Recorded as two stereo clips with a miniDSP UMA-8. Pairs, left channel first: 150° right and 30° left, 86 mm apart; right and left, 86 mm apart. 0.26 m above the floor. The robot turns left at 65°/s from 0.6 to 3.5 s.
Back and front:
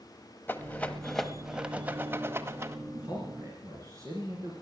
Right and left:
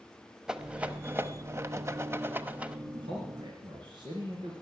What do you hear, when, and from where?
0.5 s a rattle: 165° left, 0.8 m; by 2.8 s 25° left, 0.8 m
2.9 s a man speaking: 120° left, 3 m; by 4.5 s 75° left, 3 m